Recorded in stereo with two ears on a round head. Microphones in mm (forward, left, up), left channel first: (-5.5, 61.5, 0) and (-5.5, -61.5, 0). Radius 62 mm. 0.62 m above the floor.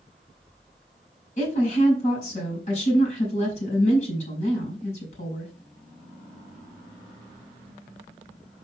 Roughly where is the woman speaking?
Left.